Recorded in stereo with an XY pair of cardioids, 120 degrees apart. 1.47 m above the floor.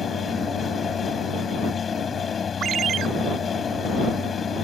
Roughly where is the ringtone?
Ahead right.